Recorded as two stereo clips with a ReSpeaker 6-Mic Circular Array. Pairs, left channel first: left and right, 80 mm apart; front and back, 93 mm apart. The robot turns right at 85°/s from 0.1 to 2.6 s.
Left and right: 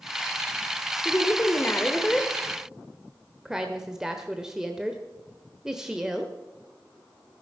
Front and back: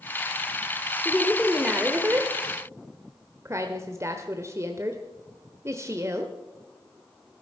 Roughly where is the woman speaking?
Ahead left.